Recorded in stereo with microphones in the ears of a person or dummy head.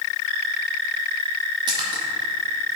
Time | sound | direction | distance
1.7 | a splash | 20° right (ahead or behind) | 1.5 m